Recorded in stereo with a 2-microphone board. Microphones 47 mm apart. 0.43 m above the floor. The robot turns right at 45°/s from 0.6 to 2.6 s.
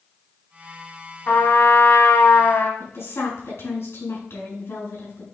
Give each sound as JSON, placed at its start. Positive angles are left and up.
{"t": 1.3, "sound": "a trumpet", "azimuth_deg": 40, "distance_m": 1.3}
{"t": 2.8, "sound": "a woman speaking", "side_deg": 70, "distance_m": 4.0}